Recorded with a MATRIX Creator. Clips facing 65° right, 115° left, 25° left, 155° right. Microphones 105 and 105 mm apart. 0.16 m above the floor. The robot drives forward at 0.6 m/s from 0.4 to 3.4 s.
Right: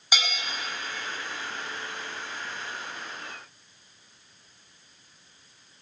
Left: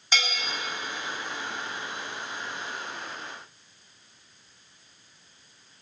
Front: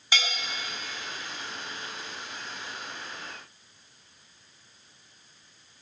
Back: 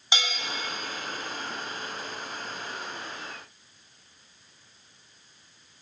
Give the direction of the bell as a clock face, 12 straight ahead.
4 o'clock.